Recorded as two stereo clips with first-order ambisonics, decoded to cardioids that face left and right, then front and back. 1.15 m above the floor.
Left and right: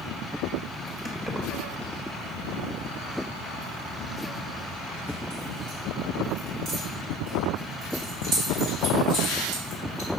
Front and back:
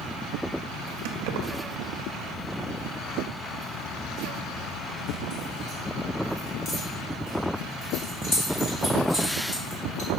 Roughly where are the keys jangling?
Behind.